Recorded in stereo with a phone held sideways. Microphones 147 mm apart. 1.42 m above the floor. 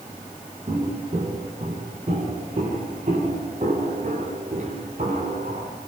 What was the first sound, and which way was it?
Footsteps, 45° right (ahead or behind).